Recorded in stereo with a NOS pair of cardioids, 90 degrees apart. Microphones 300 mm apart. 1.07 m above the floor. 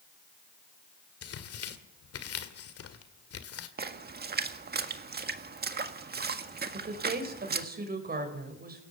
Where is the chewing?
I don't hear chewing.